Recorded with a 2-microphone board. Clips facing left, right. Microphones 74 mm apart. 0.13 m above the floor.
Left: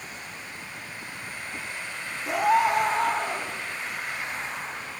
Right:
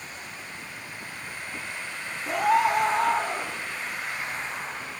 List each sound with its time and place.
2.3 s a scream: 5° left (ahead or behind), 3 m; by 3.5 s 5° right (ahead or behind), 4 m